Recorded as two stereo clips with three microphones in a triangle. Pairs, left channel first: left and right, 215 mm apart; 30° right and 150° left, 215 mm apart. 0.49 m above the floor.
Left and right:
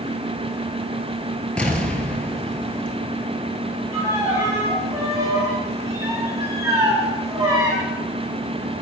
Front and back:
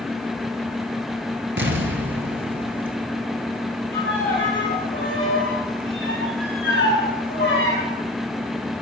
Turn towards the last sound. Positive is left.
turn(degrees=-15)